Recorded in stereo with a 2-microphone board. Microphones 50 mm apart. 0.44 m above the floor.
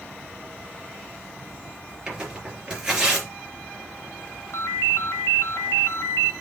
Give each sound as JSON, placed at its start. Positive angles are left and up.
{"t": 2.1, "sound": "tearing paper", "side_deg": -20, "distance_m": 3.5}
{"t": 4.5, "sound": "a ringtone", "side_deg": 70, "distance_m": 2.5}